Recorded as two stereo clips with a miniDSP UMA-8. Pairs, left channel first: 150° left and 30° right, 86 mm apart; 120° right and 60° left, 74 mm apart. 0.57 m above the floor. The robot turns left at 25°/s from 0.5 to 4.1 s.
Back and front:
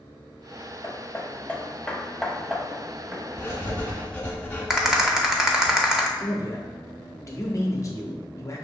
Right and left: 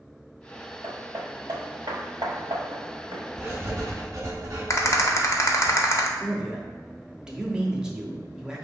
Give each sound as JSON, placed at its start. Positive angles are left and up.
{"t": 0.8, "sound": "hammering", "azimuth_deg": 100, "distance_m": 1.0}
{"t": 3.4, "sound": "writing", "azimuth_deg": 95, "distance_m": 1.1}
{"t": 4.7, "sound": "a rattle", "azimuth_deg": -110, "distance_m": 0.6}
{"t": 6.2, "sound": "a man speaking", "azimuth_deg": 135, "distance_m": 0.8}